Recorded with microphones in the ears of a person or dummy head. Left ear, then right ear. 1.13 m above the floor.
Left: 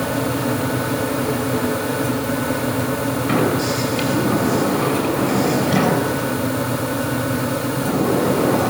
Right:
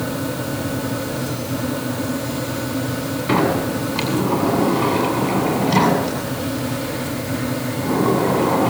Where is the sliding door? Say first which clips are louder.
Right 2 dB; 30° right (ahead or behind), 8.5 m.